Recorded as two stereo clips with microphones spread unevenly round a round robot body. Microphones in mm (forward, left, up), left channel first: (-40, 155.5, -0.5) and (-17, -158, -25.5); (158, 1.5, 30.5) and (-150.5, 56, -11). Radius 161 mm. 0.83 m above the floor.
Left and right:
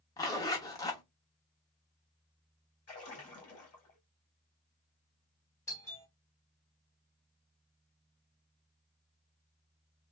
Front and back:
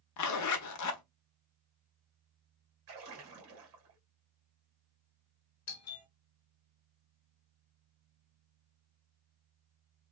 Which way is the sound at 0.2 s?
15° left.